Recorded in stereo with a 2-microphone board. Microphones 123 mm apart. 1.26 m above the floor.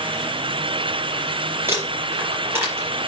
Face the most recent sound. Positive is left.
turn(degrees=-20)  # may be behind; listen again after turning